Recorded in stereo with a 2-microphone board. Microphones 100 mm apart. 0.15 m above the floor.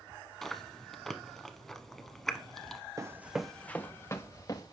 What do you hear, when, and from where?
0.4 s chewing: 5° left (ahead or behind), 0.9 m
3.0 s running footsteps: 35° right (ahead or behind), 0.6 m; by 4.7 s 40° left (ahead or behind), 1.3 m